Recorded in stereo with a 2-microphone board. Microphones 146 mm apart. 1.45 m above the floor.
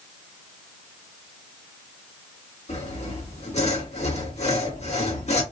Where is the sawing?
50° left (ahead or behind), 1.4 m.